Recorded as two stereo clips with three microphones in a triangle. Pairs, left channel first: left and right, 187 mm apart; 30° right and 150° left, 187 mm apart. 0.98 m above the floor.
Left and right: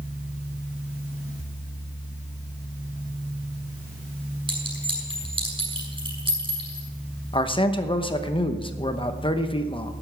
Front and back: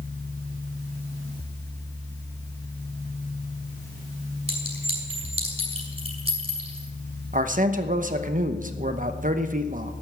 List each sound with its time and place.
4.5 s a clink: 155° right, 7 m
7.3 s a man speaking: 140° left, 0.9 m